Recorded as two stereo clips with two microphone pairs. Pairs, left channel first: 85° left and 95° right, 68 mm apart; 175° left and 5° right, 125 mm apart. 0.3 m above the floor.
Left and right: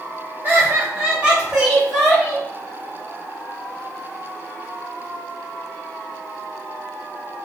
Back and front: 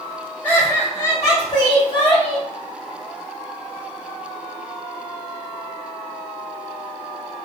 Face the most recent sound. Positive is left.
turn(degrees=160)